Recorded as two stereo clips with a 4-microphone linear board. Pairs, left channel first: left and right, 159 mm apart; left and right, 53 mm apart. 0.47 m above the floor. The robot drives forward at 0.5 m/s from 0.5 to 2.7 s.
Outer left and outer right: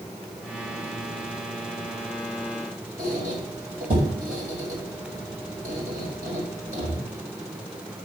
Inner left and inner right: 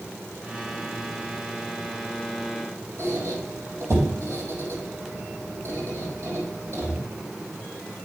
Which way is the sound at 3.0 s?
55° right (ahead or behind).